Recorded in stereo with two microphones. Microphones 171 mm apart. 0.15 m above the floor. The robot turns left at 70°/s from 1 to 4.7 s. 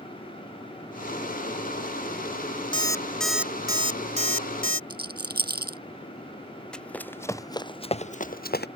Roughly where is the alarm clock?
Ahead left.